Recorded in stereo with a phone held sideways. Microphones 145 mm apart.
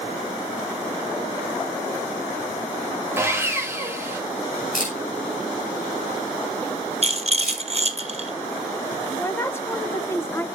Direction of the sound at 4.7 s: 65° left (ahead or behind).